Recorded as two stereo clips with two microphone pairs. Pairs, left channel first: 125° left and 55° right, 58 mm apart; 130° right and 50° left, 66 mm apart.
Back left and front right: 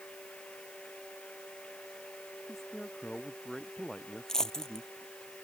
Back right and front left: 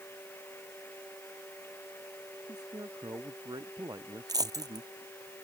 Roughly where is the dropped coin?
Ahead left.